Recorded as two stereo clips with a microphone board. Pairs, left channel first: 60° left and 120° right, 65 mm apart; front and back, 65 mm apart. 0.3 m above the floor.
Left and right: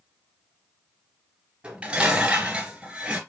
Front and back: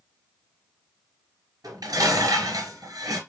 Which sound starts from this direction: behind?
Dishes clattering, at 1.6 s.